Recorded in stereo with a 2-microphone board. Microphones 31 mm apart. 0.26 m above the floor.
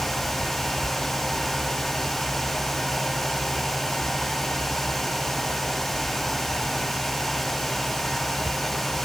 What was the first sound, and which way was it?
Only background noise.